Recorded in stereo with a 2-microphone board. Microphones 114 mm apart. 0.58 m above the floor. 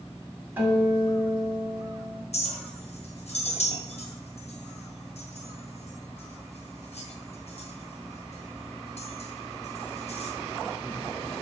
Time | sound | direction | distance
0.6 | a guitar | 20° right (ahead or behind) | 1.9 m
2.3 | a clink | 70° left (ahead or behind) | 1.7 m